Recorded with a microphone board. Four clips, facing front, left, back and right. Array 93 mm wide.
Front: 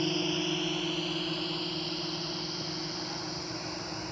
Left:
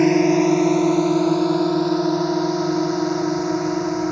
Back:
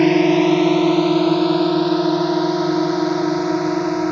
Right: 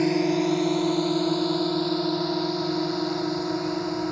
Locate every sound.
0.0 s a drone: 155° left; by 4.1 s 165° left